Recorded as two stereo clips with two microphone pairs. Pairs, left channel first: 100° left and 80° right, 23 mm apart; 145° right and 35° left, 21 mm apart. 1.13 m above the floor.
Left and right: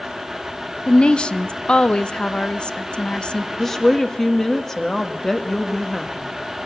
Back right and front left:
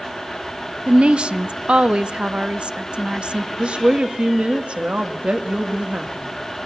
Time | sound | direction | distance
0.9 | a woman speaking | 55° left | 0.7 m
3.6 | a woman speaking | 25° left | 1.7 m